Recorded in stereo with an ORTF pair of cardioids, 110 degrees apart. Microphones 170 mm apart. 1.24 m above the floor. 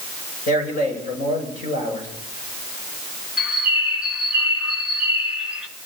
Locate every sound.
0.5 s a man speaking: 65° left, 7.5 m
3.4 s a bird: 5° right, 1.5 m